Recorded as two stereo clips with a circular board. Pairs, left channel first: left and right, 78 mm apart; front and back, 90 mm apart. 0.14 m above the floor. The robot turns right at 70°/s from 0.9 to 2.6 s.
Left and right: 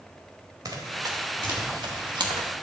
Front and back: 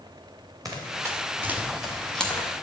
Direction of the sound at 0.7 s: 130° right.